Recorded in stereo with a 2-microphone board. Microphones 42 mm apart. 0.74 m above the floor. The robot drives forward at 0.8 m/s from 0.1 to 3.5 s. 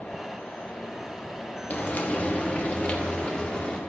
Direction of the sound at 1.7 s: 40° left (ahead or behind).